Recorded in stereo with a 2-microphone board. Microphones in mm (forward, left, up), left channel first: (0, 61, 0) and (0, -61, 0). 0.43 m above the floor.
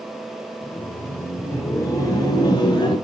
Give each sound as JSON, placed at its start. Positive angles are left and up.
{"t": 0.6, "sound": "laughter", "side_deg": 5, "distance_m": 1.7}